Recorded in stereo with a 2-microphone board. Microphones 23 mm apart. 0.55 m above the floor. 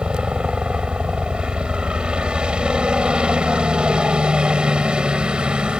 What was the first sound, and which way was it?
A helicopter, 50° right (ahead or behind).